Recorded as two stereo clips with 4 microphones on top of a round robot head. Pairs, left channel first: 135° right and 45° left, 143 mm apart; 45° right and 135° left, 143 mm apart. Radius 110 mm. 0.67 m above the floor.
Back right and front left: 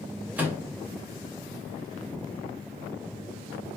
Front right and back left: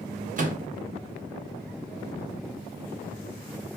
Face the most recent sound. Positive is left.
turn(degrees=120)